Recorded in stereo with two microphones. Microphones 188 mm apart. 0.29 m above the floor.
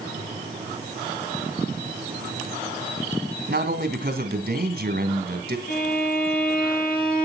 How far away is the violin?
About 7 m.